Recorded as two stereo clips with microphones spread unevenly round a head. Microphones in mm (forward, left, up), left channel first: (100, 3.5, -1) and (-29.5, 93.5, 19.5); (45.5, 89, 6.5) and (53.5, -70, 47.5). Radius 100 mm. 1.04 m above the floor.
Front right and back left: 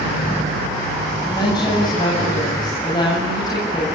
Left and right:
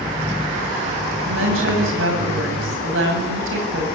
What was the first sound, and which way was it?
A woman speaking, 105° right.